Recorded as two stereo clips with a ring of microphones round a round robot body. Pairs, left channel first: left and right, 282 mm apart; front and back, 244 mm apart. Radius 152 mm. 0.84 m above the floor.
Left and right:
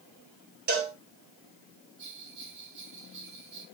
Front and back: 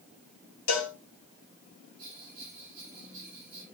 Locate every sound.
0.7 s a cowbell: 30° right, 2.5 m
2.0 s a bell: 140° right, 5.5 m